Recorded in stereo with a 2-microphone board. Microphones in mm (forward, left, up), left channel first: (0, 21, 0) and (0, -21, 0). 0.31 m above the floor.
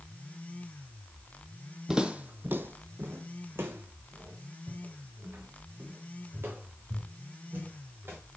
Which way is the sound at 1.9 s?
15° right (ahead or behind).